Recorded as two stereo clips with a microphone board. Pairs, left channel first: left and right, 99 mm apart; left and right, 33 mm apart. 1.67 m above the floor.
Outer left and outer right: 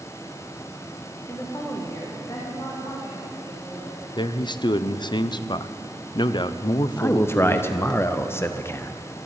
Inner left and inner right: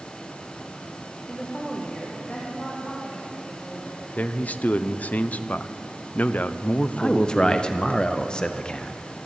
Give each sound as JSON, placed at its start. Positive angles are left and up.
{"t": 1.3, "sound": "a woman speaking", "side_deg": 25, "distance_m": 1.4}
{"t": 4.2, "sound": "a man speaking", "side_deg": 50, "distance_m": 0.5}
{"t": 7.0, "sound": "a man speaking", "side_deg": 25, "distance_m": 0.6}